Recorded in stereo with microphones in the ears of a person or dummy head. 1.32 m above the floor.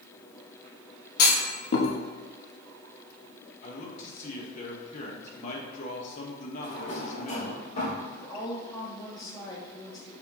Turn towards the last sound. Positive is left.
turn(degrees=25)  # may be behind; listen again after turning